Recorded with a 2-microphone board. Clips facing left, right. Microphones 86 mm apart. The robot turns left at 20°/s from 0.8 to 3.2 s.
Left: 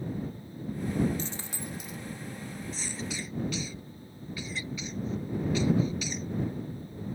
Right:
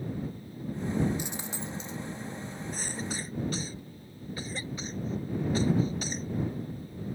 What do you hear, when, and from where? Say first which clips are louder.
1.2 s a dropped coin: right 1 dB; 15° right (ahead or behind); by 2.0 s 30° right (ahead or behind)
2.7 s a cough: right 2 dB; 50° right (ahead or behind); by 6.3 s 40° right (ahead or behind)